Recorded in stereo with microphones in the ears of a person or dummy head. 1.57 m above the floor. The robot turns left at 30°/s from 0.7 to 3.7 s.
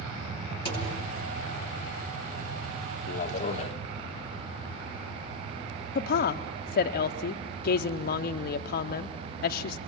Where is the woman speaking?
55° left (ahead or behind), 0.6 m.